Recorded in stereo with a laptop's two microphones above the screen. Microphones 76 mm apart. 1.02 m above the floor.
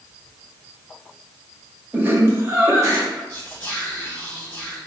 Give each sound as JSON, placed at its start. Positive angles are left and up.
{"t": 1.9, "sound": "laughter", "side_deg": -20, "distance_m": 0.7}
{"t": 3.3, "sound": "whispering", "side_deg": 45, "distance_m": 0.9}